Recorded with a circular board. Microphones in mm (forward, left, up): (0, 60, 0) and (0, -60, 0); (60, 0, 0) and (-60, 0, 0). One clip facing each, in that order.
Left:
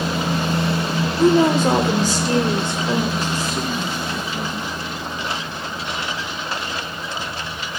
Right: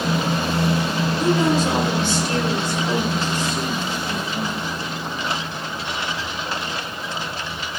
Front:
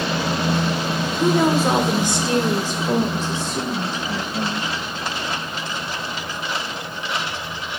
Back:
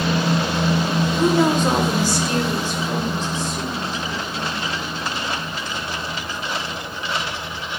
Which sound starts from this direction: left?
A woman speaking, at 1.2 s.